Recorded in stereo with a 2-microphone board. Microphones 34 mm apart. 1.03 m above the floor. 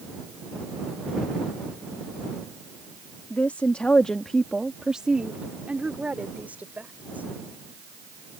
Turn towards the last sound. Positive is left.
turn(degrees=-60)  # may be behind; listen again after turning